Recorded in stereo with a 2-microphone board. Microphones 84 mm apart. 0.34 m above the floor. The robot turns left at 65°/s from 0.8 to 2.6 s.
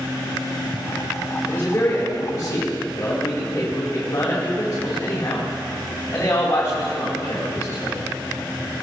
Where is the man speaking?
145° left, 2 m; by 8.0 s 75° left, 2 m.